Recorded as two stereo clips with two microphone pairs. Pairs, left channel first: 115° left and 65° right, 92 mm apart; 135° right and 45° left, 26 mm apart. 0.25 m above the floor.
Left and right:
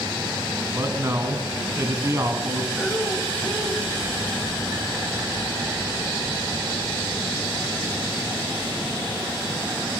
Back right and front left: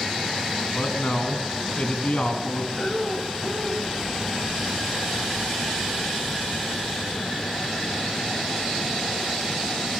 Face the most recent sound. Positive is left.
turn(degrees=180)